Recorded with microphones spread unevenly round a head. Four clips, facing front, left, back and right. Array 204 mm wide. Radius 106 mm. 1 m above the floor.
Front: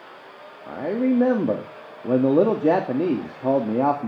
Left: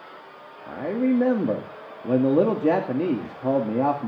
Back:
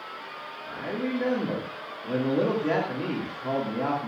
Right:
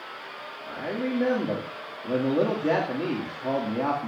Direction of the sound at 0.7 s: 25° left.